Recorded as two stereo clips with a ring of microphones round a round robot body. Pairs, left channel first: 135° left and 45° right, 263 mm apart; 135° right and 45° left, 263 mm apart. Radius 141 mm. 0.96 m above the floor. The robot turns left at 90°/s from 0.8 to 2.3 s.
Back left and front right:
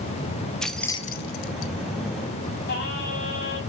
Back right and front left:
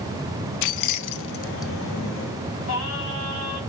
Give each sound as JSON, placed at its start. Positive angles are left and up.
{"t": 0.6, "sound": "keys jangling", "azimuth_deg": -135, "distance_m": 0.6}
{"t": 2.7, "sound": "singing", "azimuth_deg": -170, "distance_m": 4.0}